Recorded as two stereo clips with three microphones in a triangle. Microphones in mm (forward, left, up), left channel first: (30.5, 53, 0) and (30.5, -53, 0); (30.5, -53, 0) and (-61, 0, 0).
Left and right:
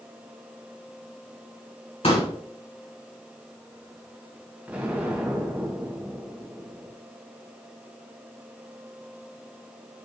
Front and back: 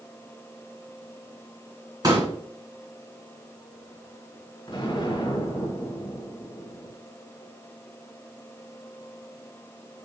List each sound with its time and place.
2.0 s a pop: 100° left, 3 m
4.7 s an explosion: 15° right, 1.8 m